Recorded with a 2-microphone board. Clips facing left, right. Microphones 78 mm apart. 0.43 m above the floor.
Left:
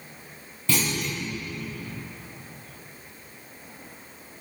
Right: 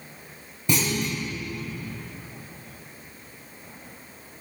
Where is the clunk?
20° right (ahead or behind), 8.5 m.